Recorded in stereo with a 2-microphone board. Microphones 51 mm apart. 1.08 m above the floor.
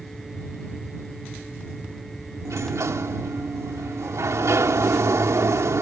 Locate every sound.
2.5 s a sliding door: 75° right (ahead or behind)